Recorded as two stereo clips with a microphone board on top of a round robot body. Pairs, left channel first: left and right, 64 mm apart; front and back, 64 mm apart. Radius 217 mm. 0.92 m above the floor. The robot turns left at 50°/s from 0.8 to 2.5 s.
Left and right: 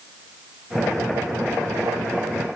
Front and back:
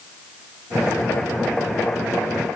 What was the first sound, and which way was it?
Only background noise.